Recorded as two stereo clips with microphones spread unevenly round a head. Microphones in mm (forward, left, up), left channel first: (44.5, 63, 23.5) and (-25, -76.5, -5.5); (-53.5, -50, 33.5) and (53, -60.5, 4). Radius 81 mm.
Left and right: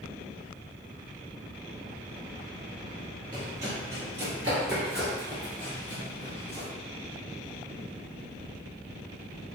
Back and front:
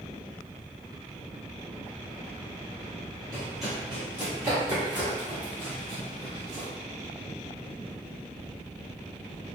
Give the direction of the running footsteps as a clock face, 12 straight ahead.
6 o'clock.